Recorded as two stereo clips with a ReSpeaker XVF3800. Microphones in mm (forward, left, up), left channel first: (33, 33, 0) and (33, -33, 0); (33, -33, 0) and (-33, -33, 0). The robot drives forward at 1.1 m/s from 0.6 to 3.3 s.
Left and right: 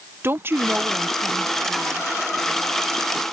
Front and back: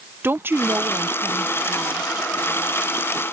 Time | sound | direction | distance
0.2 | a woman speaking | 135° right | ?